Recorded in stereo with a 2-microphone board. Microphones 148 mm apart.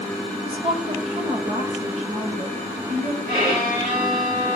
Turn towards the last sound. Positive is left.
turn(degrees=-80)